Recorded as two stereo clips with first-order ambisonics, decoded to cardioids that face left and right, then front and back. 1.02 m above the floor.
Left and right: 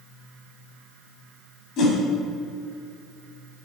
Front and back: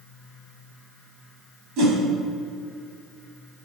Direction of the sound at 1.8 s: 140° left.